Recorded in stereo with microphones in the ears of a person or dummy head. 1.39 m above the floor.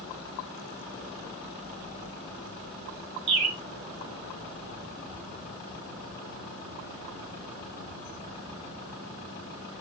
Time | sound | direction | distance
3.3 | a bird | 30° right (ahead or behind) | 4 m